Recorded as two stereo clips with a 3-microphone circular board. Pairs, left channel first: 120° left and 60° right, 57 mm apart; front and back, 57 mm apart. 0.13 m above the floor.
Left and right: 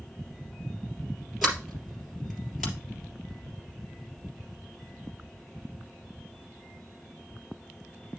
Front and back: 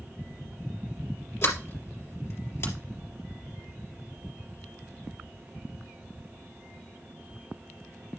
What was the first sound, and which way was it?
A sliding door, 30° left.